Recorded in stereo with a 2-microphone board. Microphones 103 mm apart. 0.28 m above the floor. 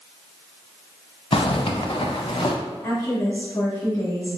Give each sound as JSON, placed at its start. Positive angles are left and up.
{"t": 1.3, "sound": "a zipper", "side_deg": 65, "distance_m": 0.6}
{"t": 2.8, "sound": "a woman speaking", "side_deg": 40, "distance_m": 1.9}